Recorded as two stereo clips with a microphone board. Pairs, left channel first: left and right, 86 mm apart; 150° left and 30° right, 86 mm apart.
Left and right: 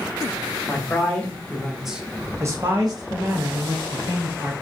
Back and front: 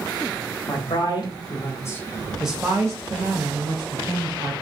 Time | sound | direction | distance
0.7 | a man speaking | 150° left | 1.0 m